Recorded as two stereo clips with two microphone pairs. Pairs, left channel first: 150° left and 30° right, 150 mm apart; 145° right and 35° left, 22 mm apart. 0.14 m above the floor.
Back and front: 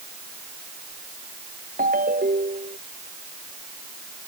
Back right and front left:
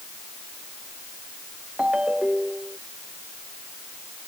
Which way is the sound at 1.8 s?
10° right.